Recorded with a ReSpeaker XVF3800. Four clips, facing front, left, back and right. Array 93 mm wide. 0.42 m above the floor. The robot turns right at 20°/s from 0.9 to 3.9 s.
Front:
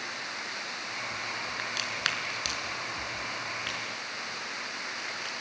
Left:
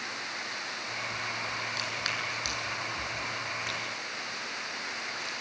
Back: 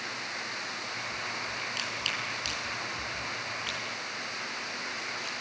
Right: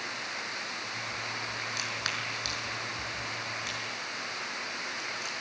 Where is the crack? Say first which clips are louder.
Left 1 dB, front 2 dB; 15° right, 5.5 m; by 5.3 s 30° left, 5.5 m.